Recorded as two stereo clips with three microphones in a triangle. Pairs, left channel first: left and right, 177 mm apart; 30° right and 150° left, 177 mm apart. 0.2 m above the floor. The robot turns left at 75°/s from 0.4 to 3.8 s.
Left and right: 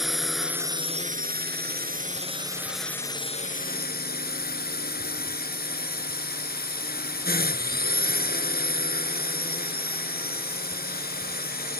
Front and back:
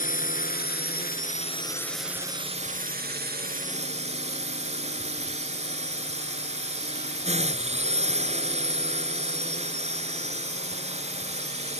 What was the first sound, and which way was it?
A drone, straight ahead.